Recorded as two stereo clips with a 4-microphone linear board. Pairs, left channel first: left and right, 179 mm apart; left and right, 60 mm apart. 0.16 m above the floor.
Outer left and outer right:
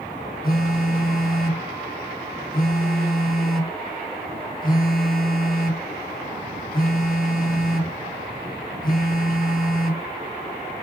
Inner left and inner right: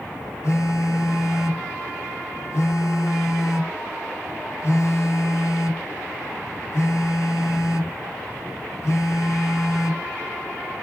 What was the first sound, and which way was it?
A phone buzzing, 55° left (ahead or behind).